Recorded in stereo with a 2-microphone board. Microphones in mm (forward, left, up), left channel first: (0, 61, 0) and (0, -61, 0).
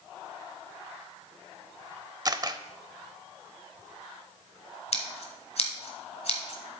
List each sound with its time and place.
2.2 s a camera shutter: 30° right (ahead or behind), 0.6 m
4.9 s scissors: 60° left (ahead or behind), 1.5 m